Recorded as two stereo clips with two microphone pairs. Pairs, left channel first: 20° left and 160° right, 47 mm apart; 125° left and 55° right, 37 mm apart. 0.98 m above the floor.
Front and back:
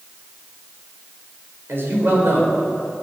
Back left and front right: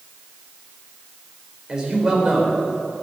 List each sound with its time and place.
1.7 s a man speaking: 125° right, 4 m